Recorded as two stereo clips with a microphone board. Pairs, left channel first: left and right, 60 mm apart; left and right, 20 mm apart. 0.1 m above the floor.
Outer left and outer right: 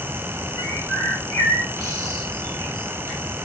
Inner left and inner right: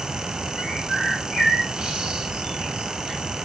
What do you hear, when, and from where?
0.6 s a bird: 55° right (ahead or behind), 5 m